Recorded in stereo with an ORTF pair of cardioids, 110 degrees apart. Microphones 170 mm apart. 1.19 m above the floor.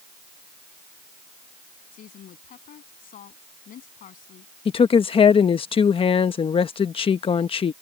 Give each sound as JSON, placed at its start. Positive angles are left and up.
{"t": 1.9, "sound": "a woman speaking", "azimuth_deg": 60}
{"t": 4.7, "sound": "a woman speaking", "azimuth_deg": 35}